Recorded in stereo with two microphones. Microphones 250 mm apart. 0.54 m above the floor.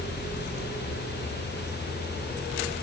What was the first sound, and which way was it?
Only background noise.